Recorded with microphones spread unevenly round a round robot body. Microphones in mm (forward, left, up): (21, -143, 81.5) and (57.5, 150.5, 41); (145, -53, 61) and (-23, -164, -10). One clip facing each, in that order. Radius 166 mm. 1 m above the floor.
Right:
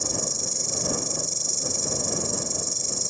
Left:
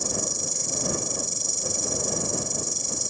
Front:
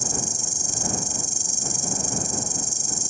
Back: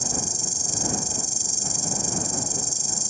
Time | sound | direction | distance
0.0 | an insect | 10° left | ?